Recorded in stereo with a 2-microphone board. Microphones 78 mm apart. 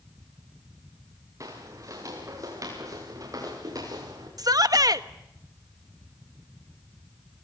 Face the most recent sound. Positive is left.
turn(degrees=-55)  # may be behind; listen again after turning